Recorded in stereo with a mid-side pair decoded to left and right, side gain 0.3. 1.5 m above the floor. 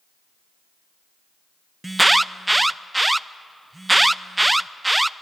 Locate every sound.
1.8 s an alarm: 15° right, 0.6 m